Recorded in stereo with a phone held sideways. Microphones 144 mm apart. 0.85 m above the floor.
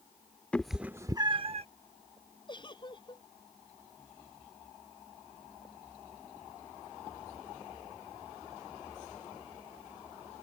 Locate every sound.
0.5 s a cat meowing: 10° left (ahead or behind); by 1.6 s 45° right (ahead or behind)
2.5 s a giggle: 35° left (ahead or behind)